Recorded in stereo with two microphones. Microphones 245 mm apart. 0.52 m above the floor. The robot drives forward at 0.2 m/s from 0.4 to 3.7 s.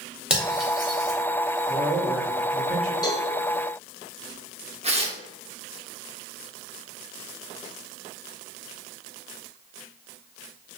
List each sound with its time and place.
0.3 s cutlery clinking: 5° right (ahead or behind), 0.8 m
1.7 s a man speaking: 5° left (ahead or behind), 1.0 m
3.0 s a cowbell: 15° left (ahead or behind), 0.7 m
4.8 s tearing paper: 25° right (ahead or behind), 0.6 m